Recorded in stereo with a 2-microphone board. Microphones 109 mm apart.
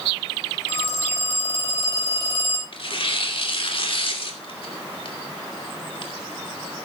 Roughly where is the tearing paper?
Left.